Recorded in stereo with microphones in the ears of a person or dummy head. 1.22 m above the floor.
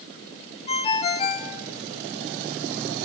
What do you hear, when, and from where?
0.7 s a ringtone: 30° left (ahead or behind), 3.5 m